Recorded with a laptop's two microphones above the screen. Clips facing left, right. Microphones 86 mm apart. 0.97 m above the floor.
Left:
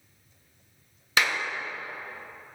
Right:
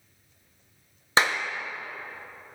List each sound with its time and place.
1.2 s a clap: 35° right (ahead or behind), 0.7 m